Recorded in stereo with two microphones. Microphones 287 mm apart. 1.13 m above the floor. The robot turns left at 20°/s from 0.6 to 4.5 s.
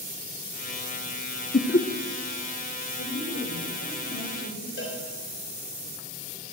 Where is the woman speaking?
115° left, 4.5 m; by 4.7 s 85° left, 4.5 m.